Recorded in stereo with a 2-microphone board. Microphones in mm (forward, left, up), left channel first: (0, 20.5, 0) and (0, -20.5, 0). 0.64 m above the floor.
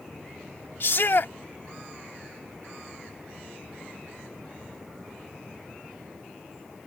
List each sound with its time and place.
0.8 s a shout: 55° left (ahead or behind)